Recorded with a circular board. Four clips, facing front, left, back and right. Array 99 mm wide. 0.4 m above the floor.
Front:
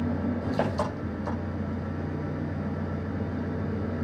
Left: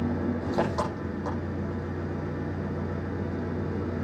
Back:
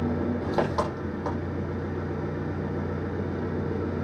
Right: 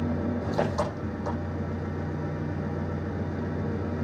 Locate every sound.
0.0 s an engine running: 160° left, 9.5 m